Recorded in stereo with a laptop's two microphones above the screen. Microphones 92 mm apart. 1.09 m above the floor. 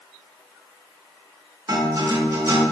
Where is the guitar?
30° right (ahead or behind), 0.9 m.